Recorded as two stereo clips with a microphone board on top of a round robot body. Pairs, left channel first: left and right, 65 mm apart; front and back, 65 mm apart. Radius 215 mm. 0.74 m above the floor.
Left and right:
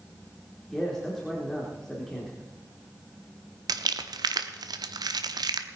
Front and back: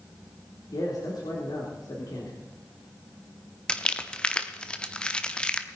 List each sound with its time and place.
0.7 s a man speaking: 5° left, 3.5 m
3.7 s crumpling: 75° right, 0.8 m